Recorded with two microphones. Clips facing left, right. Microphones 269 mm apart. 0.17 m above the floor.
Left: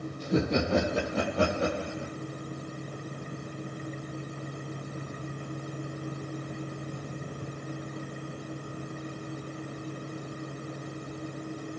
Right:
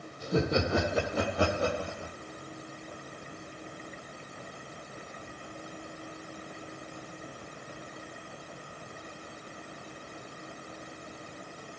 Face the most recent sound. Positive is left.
turn(degrees=65)  # may be behind; listen again after turning